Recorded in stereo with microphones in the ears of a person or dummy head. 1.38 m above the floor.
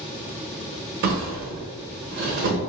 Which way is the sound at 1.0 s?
50° right (ahead or behind).